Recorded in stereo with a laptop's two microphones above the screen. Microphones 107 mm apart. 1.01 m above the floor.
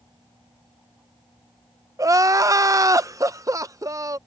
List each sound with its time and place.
2.0 s crying: 30° right (ahead or behind)